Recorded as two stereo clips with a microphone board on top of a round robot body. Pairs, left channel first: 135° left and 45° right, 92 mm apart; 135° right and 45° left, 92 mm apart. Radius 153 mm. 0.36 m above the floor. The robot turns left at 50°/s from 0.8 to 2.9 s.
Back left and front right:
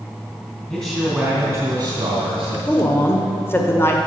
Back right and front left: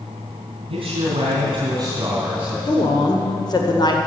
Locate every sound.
0.7 s a man speaking: 50° left, 3 m; by 2.5 s 35° right, 3 m
2.6 s a woman speaking: 150° right, 2 m; by 4.0 s 165° right, 2 m